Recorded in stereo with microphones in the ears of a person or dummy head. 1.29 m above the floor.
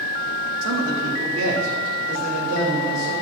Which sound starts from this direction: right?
A man speaking, at 0.6 s.